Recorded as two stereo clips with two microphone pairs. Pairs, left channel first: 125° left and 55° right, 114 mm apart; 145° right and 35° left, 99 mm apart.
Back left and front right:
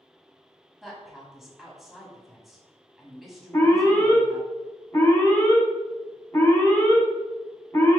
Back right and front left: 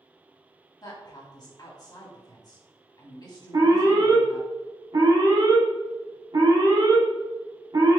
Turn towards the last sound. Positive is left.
turn(degrees=60)